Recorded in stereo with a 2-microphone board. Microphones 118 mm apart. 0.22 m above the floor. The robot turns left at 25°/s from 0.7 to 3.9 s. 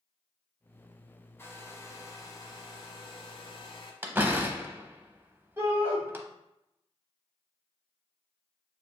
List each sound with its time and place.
1.4 s a hair dryer: 150° left, 0.8 m; by 3.9 s 90° left, 0.8 m
4.0 s a door slam: 20° right (ahead or behind), 0.6 m
5.6 s a shout: 20° right (ahead or behind), 1.1 m